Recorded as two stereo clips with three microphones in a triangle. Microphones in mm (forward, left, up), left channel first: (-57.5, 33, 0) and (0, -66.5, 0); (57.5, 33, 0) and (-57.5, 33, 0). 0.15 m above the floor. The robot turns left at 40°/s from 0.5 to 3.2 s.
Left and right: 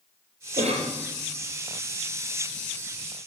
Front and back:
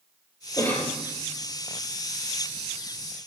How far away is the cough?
About 3.5 m.